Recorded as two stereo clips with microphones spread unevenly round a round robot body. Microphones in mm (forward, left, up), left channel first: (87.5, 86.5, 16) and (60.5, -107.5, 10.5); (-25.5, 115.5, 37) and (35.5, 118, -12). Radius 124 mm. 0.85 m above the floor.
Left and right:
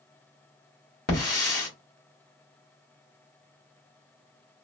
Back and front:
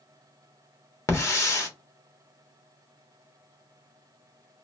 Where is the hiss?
135° left, 1.2 m.